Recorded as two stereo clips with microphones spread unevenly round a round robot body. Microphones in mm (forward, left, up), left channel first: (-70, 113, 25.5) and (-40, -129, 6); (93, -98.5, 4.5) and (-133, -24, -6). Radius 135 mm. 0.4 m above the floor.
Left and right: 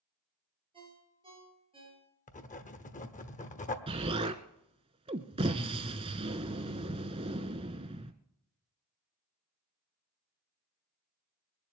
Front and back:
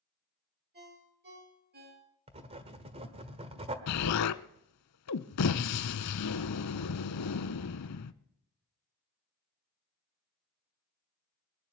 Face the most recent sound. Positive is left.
turn(degrees=-10)